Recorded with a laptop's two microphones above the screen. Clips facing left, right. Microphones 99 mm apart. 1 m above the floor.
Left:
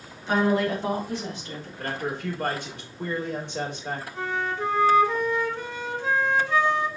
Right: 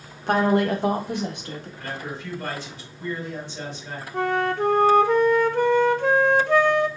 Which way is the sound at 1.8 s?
60° left (ahead or behind).